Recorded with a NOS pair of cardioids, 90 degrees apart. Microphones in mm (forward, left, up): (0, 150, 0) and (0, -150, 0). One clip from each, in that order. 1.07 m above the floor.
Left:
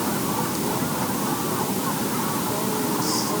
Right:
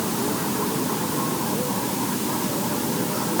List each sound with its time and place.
Only background noise.